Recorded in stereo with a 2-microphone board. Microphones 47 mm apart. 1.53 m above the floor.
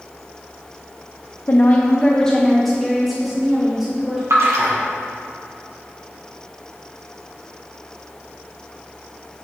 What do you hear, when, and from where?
1.5 s a woman speaking: 45° left (ahead or behind), 0.7 m; by 4.2 s 10° right (ahead or behind), 2 m
4.3 s a splash: 75° right (ahead or behind), 1.6 m